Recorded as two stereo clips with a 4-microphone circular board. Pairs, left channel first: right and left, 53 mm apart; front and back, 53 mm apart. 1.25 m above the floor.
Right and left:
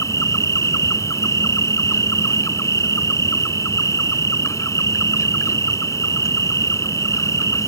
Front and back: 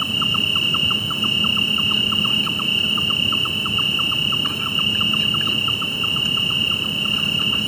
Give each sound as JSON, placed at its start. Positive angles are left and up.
{"t": 0.0, "sound": "an insect", "azimuth_deg": -80}